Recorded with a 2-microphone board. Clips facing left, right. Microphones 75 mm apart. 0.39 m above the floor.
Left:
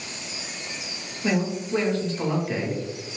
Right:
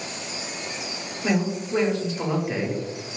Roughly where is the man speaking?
Centre.